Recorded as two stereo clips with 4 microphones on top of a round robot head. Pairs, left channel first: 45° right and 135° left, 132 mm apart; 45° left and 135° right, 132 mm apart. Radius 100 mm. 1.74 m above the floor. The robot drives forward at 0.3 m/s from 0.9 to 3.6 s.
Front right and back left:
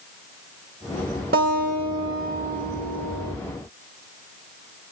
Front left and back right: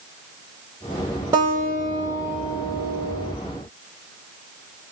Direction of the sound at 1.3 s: 155° left.